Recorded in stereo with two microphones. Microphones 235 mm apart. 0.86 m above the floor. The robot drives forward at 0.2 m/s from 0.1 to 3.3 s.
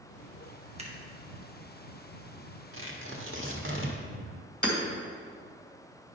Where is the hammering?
45° left (ahead or behind), 2.0 m.